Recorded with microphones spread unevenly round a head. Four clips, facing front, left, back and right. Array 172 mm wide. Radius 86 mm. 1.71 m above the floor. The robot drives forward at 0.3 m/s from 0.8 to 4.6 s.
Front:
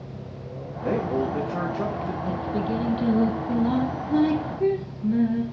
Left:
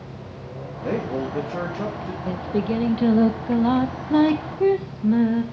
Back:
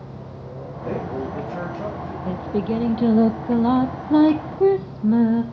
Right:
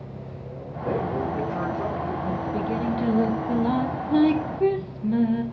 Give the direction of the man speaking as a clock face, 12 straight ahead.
11 o'clock.